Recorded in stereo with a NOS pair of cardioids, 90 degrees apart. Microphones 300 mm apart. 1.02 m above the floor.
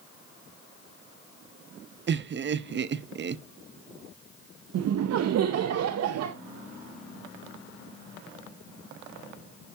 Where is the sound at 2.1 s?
40° right, 0.8 m.